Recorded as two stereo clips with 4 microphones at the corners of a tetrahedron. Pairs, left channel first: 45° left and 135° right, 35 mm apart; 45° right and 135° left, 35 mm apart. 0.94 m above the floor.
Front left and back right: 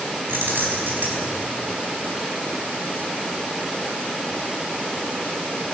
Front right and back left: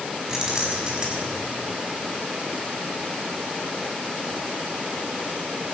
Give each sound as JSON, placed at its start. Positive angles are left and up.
{"t": 0.3, "sound": "keys jangling", "azimuth_deg": -155, "distance_m": 5.0}